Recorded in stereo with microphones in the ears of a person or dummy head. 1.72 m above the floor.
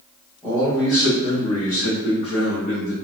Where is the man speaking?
5° left (ahead or behind), 1.5 m; by 2.9 s 65° left (ahead or behind), 1.7 m.